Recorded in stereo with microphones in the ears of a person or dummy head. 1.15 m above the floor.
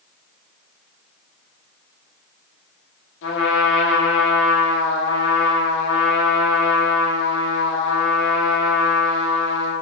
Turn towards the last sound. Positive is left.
turn(degrees=70)  # may be behind; listen again after turning